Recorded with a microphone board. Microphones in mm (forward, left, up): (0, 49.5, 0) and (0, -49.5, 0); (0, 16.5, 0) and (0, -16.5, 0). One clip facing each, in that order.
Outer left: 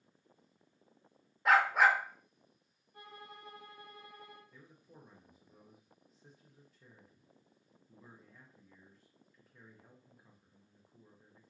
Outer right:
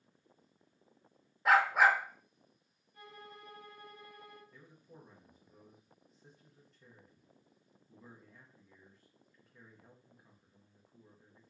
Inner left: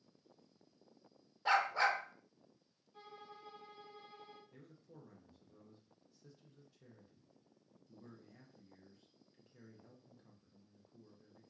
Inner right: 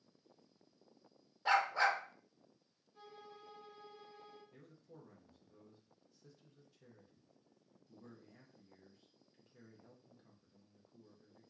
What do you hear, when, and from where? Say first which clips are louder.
1.4 s a dog barking: even, even; centre (ahead or behind), 0.8 m
2.9 s a violin: even, inner left 1 dB; 50° left (ahead or behind), 1.9 m
4.5 s a man speaking: outer right 1 dB, even; centre (ahead or behind), 0.9 m